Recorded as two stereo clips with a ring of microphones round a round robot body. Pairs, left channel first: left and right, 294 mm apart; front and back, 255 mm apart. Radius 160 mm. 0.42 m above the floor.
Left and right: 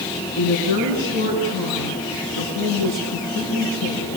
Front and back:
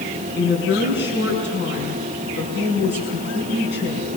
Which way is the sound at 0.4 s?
40° left.